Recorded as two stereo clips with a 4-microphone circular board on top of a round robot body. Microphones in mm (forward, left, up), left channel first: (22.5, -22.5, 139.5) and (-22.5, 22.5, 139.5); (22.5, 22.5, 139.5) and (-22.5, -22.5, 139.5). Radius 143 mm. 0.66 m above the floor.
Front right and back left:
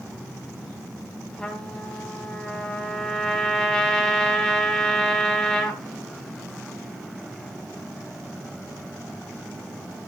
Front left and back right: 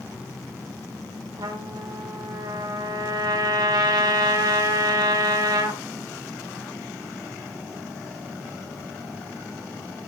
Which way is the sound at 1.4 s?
125° right.